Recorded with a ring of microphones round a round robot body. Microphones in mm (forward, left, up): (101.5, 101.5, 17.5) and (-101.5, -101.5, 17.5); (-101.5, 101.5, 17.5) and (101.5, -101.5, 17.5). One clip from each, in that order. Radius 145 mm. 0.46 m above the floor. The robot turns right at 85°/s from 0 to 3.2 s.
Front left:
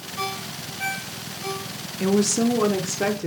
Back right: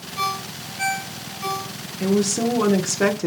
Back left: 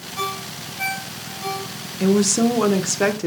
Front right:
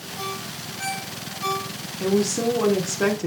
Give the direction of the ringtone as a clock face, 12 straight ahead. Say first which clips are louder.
Back right 5 dB, back left 5 dB; 7 o'clock.